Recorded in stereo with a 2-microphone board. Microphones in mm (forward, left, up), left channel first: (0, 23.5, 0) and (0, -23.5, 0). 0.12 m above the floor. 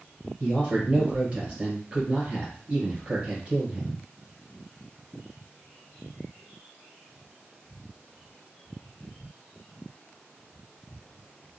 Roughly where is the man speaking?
Right.